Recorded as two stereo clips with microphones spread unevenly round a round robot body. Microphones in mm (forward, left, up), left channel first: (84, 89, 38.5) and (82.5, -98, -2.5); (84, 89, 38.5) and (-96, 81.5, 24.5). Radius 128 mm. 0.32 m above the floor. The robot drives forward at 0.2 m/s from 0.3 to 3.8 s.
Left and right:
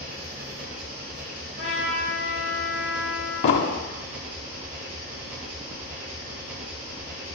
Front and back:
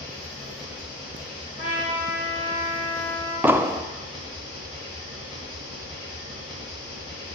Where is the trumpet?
135° right, 3 m; by 3.3 s 140° right, 3.5 m.